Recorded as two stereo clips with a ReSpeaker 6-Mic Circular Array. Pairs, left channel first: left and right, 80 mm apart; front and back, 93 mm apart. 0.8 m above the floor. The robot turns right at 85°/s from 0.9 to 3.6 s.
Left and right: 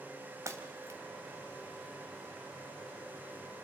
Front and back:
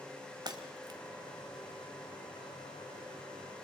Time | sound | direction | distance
0.5 | breaking glass | 140° right | 1.7 m